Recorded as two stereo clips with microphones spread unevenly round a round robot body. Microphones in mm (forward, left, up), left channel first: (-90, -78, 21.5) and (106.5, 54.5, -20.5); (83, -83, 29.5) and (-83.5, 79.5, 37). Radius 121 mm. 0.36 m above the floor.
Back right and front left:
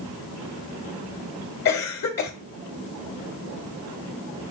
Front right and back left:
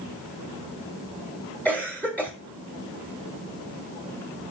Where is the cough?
125° right, 1.2 m.